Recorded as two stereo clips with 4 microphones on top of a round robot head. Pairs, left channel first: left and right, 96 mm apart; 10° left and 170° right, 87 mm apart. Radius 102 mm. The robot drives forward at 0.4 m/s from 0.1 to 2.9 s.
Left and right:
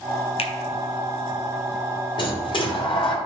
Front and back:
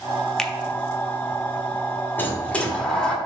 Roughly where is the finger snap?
Left.